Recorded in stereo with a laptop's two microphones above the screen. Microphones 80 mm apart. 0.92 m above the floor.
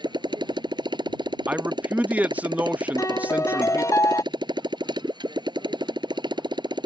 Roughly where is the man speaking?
Centre.